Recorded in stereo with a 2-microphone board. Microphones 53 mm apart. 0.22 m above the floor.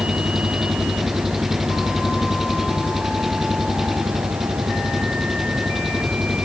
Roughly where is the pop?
No pop in this recording.